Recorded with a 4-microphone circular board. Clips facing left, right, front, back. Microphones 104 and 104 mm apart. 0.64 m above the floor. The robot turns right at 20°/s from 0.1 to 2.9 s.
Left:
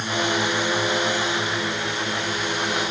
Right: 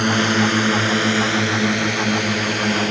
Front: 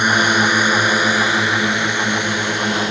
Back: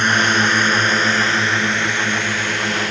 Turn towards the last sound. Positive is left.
turn(degrees=-70)